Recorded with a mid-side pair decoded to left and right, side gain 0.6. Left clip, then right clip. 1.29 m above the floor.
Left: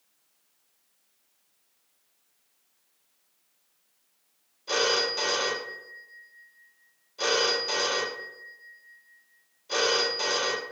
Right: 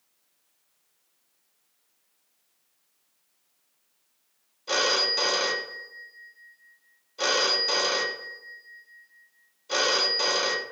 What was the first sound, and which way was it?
A phone ringing, 20° right.